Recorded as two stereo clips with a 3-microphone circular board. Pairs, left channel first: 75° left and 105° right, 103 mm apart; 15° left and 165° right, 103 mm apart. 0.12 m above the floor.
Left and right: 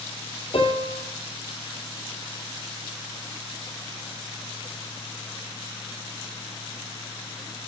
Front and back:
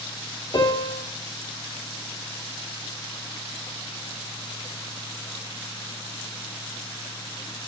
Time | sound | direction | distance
0.5 | a piano | 60° left | 2.5 m